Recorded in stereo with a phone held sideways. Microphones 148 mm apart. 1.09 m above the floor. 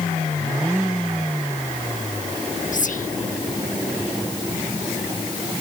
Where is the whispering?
60° left (ahead or behind).